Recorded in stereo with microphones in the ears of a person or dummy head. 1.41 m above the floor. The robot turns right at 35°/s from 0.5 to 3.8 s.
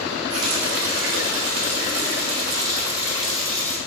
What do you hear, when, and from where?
0.3 s a running tap: 100° right, 1.5 m; by 3.8 s 15° left, 1.5 m